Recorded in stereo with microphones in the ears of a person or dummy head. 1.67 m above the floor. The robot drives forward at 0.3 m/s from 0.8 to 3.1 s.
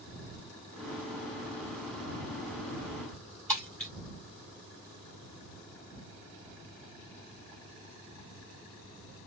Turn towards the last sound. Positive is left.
turn(degrees=10)  # may be behind; listen again after turning